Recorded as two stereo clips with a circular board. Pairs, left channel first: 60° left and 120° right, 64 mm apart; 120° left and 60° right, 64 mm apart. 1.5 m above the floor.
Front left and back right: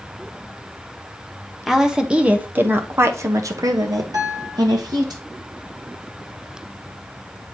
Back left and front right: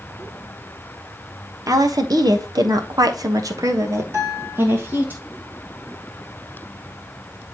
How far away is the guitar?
About 3 m.